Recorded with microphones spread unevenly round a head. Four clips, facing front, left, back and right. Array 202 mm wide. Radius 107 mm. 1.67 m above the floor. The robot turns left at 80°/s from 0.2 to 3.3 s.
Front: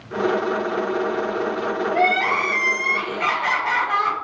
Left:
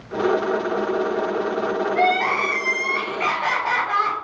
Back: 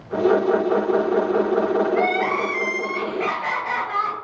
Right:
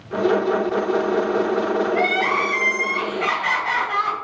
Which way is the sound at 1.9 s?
175° left.